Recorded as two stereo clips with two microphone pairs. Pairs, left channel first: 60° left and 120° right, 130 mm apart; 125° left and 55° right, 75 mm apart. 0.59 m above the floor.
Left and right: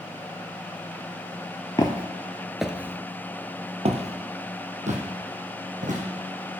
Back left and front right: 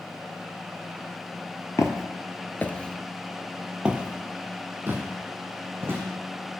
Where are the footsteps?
105° left, 0.8 m; by 6.0 s 110° right, 2 m.